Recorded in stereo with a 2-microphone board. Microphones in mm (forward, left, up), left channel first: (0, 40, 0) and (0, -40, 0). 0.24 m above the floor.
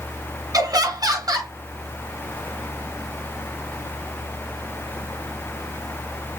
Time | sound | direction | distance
0.5 | laughter | 50° right (ahead or behind) | 1.7 m